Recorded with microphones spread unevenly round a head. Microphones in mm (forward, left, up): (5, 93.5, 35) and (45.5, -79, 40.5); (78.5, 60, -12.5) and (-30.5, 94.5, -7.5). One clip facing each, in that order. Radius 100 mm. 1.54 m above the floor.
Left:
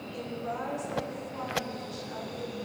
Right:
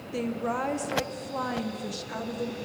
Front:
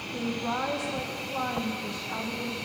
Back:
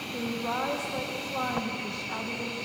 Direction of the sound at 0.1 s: 110° right.